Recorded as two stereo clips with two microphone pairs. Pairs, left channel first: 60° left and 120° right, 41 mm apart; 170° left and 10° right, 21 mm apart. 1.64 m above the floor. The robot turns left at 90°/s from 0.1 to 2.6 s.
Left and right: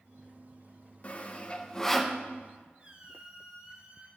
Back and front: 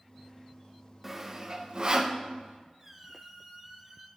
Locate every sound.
1.0 s sawing: 65° left, 0.8 m; by 2.2 s 40° right, 0.8 m
2.8 s a squeak: 70° right, 1.7 m